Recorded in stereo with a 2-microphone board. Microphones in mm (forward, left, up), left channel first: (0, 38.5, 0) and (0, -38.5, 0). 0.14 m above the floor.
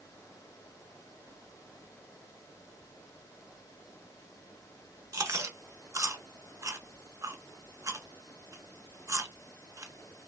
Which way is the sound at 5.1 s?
40° right (ahead or behind).